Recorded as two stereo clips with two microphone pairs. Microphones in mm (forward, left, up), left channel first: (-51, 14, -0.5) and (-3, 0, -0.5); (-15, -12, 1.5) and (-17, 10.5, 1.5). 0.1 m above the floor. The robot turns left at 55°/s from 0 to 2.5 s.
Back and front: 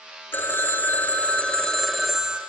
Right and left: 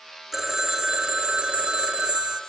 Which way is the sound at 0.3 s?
170° left.